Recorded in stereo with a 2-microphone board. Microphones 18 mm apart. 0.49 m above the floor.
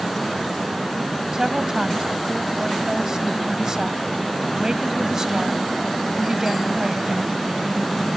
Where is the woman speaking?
40° right (ahead or behind).